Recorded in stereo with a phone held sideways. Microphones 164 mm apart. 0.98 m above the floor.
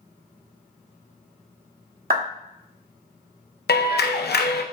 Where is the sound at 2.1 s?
65° right (ahead or behind), 1.1 m.